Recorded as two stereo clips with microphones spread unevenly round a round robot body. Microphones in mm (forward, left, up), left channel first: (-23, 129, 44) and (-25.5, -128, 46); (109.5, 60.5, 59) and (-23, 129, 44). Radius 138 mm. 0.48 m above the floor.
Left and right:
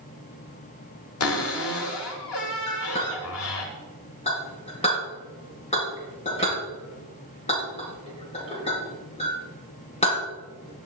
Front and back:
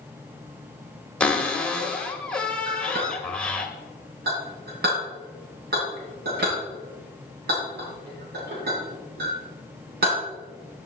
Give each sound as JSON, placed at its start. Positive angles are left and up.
{"t": 1.2, "sound": "a cupboard door", "azimuth_deg": 60, "distance_m": 1.8}
{"t": 2.7, "sound": "a clink", "azimuth_deg": 155, "distance_m": 4.5}